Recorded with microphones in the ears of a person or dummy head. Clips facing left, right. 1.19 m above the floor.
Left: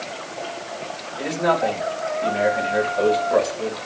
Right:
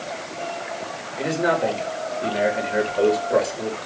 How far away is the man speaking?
About 5.5 m.